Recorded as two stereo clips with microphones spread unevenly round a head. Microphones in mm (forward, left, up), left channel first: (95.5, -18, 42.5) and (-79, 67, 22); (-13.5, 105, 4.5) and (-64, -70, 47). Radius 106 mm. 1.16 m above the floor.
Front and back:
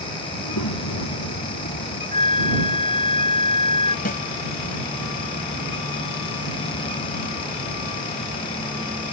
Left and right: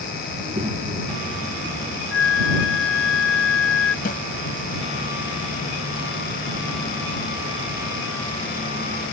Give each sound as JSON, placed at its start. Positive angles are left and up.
{"t": 0.3, "sound": "a child speaking", "azimuth_deg": -40}
{"t": 2.1, "sound": "a flute", "azimuth_deg": 35}
{"t": 4.0, "sound": "a snare drum", "azimuth_deg": 20}